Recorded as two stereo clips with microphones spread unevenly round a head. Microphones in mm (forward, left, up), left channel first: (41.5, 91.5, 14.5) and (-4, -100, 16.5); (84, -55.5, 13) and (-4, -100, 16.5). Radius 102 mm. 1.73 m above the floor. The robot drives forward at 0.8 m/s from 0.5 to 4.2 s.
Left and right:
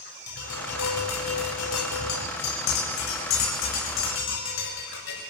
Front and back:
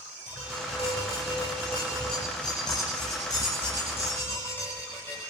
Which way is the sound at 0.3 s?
85° left.